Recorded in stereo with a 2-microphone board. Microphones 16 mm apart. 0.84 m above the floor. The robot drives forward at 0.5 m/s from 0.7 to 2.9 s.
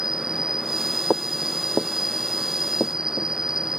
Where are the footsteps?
60° left (ahead or behind); by 3.3 s 65° left (ahead or behind).